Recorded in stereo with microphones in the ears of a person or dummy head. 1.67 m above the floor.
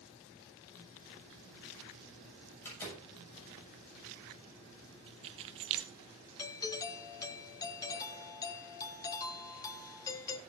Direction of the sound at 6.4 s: 15° left (ahead or behind).